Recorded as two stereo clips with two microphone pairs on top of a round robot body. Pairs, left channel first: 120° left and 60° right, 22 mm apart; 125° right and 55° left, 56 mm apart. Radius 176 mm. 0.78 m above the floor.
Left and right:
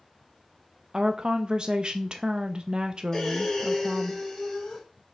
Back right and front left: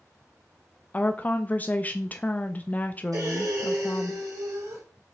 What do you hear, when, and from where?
0.9 s a woman speaking: 80° right, 0.5 m
3.1 s breathing: 50° left, 2 m